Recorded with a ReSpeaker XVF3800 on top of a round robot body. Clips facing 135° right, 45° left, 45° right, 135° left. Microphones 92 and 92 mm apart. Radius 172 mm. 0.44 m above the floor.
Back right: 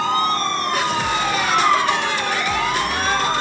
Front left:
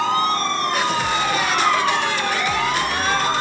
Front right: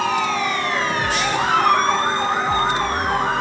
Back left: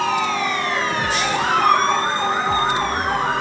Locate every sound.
1.4 s a cat meowing: 115° right, 8.5 m